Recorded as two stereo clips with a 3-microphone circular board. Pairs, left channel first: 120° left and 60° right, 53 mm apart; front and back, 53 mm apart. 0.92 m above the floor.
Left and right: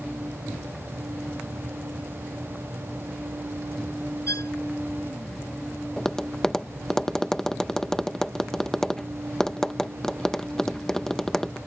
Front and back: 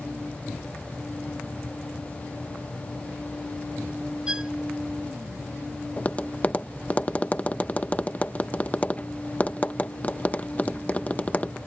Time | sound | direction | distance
4.3 | a violin | 110° left | ?
6.0 | tapping | 45° left | ?